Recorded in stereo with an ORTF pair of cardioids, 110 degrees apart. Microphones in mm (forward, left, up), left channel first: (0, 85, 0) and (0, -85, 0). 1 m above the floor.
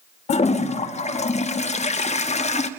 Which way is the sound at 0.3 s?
40° left.